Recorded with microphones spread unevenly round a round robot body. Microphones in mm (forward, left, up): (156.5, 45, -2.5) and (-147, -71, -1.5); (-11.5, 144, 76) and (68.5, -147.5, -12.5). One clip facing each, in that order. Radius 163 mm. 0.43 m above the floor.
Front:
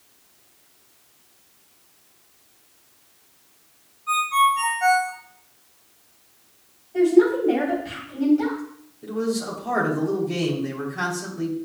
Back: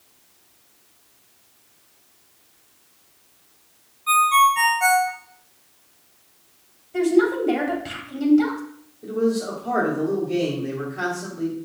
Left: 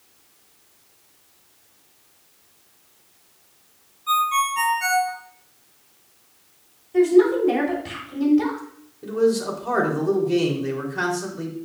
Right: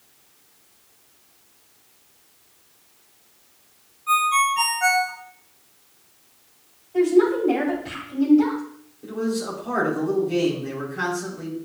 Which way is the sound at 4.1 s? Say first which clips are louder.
Back 3 dB, right 1 dB; 165° right.